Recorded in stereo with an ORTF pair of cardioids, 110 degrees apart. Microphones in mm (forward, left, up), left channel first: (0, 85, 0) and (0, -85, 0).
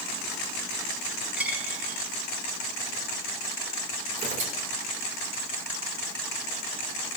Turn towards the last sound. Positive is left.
turn(degrees=-50)